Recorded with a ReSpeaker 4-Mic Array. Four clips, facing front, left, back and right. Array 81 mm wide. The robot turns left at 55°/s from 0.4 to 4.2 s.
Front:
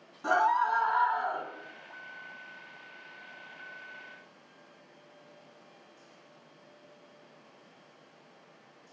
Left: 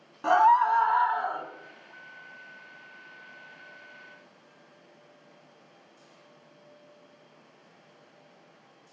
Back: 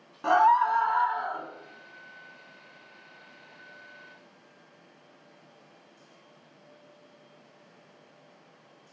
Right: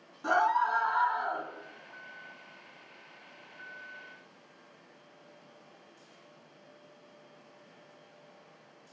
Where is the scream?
125° left, 1.7 m; by 1.4 s 70° left, 1.7 m.